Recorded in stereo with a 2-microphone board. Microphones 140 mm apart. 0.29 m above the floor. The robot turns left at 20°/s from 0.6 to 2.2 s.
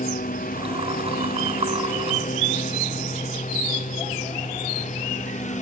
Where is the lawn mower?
80° left; by 5.6 s 60° left (ahead or behind).